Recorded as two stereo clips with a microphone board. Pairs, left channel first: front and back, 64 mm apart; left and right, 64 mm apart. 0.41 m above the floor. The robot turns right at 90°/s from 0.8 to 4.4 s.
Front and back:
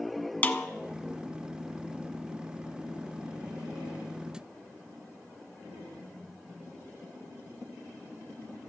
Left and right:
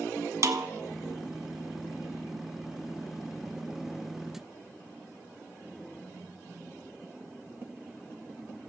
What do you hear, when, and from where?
0.4 s a snare drum: 60° right, 0.5 m